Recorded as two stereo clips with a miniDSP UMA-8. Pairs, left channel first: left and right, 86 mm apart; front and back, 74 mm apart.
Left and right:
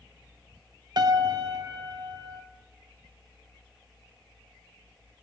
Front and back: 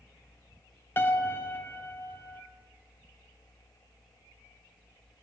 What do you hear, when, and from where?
1.0 s a piano: 60° right, 1.2 m